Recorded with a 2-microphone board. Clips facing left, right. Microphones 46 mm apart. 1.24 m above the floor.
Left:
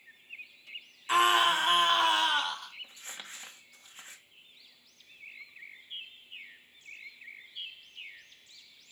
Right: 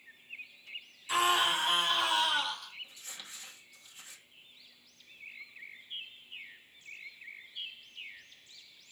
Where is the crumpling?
40° left (ahead or behind), 1.5 m.